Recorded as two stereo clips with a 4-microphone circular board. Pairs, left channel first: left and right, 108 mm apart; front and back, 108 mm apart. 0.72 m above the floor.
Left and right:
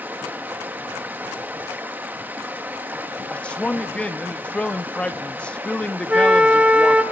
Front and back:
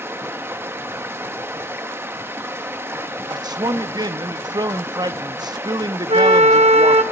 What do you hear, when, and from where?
0.0 s running water: 140° right, 0.9 m
3.3 s a man speaking: 165° left, 0.8 m
6.1 s a flute: 170° right, 0.7 m